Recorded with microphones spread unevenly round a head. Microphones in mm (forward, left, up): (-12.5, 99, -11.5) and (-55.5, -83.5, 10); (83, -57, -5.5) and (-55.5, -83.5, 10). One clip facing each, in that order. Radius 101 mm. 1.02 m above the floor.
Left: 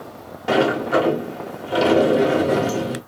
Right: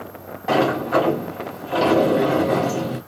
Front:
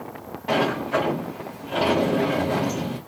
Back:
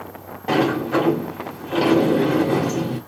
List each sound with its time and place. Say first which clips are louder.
0.5 s a sliding door: left 1 dB, back 4 dB; 135° left, 1.3 m